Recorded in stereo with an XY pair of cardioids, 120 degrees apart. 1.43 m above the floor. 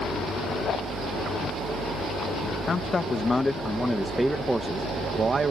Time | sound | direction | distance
2.7 | a man speaking | 30° left | ?